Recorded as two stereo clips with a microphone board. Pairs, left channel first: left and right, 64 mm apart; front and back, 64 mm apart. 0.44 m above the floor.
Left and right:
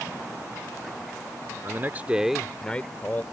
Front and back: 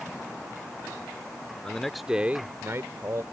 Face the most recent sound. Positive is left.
turn(degrees=150)